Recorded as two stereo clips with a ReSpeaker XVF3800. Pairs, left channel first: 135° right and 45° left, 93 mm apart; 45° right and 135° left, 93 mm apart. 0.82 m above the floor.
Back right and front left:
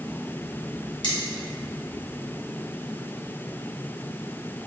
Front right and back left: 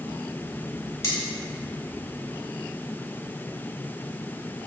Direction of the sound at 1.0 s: 105° right.